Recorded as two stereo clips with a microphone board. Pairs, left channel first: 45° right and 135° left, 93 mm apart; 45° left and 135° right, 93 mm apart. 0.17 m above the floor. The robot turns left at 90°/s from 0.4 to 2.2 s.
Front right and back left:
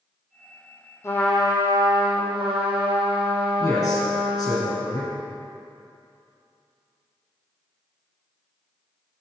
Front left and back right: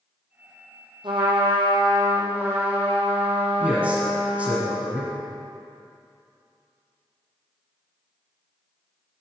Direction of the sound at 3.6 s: 75° right.